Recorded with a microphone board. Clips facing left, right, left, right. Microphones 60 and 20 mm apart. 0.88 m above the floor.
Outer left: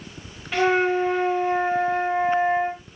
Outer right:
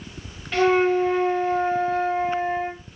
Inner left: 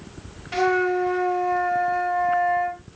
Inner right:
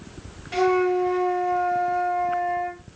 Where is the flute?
5° left (ahead or behind), 0.8 m.